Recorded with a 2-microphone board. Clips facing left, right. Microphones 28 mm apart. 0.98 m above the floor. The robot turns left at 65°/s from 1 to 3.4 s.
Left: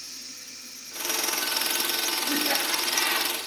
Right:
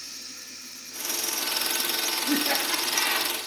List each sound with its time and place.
0.0 s running water: 110° right, 3.5 m; by 3.5 s 95° left, 3.5 m
2.3 s laughter: 115° right, 1.8 m; by 3.3 s straight behind, 1.8 m